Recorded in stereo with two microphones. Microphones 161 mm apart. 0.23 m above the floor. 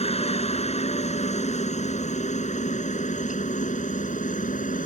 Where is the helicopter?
45° left (ahead or behind); by 4.9 s 60° left (ahead or behind).